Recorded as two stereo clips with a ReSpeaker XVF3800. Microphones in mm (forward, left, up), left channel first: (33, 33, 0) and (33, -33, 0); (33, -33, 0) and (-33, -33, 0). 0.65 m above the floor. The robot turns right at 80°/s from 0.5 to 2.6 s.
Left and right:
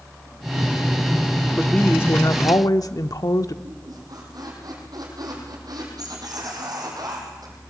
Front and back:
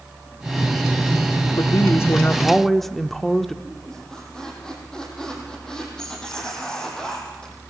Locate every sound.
1.6 s a woman speaking: straight ahead, 1.1 m; by 3.5 s 85° left, 1.1 m
3.6 s a squeak: 80° right, 5.5 m